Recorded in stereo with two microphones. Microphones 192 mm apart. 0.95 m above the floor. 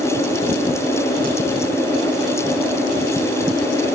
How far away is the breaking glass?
I don't hear breaking glass.